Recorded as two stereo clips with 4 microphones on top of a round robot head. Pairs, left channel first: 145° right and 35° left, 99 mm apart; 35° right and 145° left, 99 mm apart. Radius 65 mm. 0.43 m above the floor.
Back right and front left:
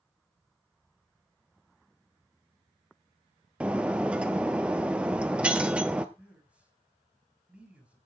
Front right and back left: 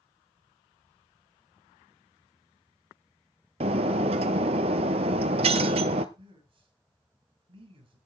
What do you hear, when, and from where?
3.6 s breaking glass: 115° left, 0.9 m
6.2 s a man speaking: 115° left, 6.5 m